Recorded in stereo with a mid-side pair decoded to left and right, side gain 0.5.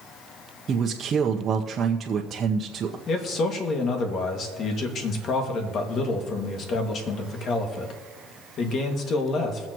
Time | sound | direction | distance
0.7 | a man speaking | 45° right | 1.0 m
3.1 | a man speaking | 55° left | 2.5 m